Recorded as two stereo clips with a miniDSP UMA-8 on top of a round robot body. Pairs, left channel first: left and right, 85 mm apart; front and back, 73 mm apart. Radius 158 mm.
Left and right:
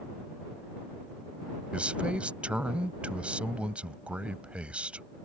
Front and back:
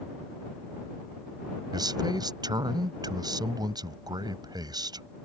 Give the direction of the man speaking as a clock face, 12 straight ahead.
6 o'clock.